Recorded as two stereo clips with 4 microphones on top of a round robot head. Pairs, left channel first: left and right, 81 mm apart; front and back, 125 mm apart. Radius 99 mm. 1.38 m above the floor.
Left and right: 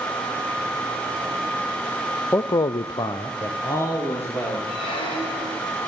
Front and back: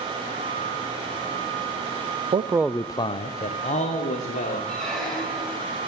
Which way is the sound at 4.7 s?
85° left.